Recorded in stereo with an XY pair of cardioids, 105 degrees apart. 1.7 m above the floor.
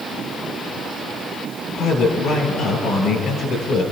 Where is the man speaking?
65° left, 5.5 m.